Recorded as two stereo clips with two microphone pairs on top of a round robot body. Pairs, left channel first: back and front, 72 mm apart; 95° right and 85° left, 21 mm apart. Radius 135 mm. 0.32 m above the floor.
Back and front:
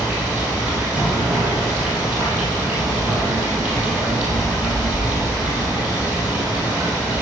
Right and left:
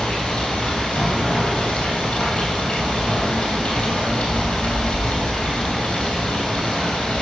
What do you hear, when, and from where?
0.0 s running water: 75° right, 3 m